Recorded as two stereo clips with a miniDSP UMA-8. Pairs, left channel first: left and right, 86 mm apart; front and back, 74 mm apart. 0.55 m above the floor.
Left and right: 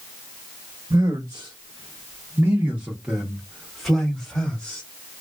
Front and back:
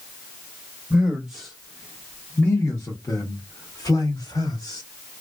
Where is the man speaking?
100° right, 1.1 m; by 4.8 s 20° left, 1.6 m.